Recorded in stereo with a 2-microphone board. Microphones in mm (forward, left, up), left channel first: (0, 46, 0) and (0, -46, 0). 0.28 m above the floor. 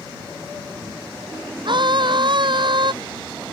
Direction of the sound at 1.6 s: 55° right (ahead or behind).